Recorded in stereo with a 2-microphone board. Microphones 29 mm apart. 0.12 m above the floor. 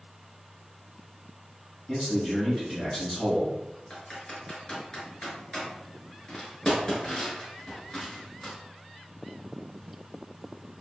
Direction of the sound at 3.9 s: 25° left (ahead or behind).